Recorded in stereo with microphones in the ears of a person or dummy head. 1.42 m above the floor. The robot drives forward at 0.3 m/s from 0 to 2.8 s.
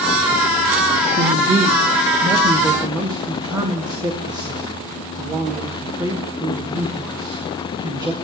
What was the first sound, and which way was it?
A man speaking, 20° right (ahead or behind).